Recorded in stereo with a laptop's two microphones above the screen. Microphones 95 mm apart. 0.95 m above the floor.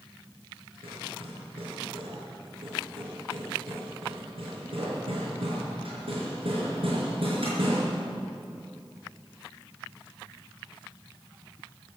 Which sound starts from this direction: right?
Hammering, at 0.8 s.